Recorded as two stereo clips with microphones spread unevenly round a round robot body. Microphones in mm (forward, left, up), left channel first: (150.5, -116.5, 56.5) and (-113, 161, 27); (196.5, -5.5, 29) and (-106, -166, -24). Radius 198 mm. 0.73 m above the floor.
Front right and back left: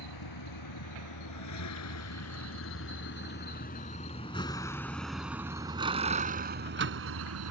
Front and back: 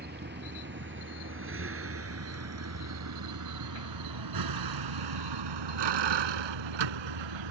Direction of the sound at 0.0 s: 90° right.